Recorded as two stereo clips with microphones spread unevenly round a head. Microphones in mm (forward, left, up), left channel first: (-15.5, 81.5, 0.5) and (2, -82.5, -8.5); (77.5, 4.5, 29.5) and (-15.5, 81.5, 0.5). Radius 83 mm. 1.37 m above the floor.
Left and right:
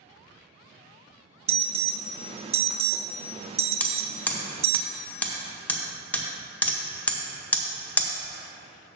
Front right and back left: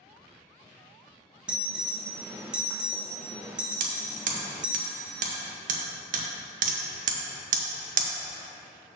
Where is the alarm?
120° right, 0.5 m.